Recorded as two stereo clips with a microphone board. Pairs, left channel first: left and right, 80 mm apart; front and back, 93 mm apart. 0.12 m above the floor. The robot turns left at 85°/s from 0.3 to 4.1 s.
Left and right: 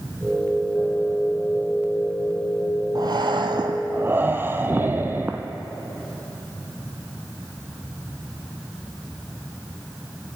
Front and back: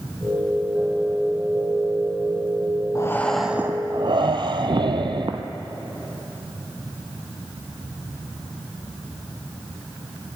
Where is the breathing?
50° right, 0.6 m; by 5.5 s 150° right, 0.6 m.